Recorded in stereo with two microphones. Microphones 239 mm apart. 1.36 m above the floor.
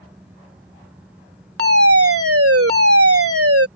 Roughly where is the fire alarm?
Right.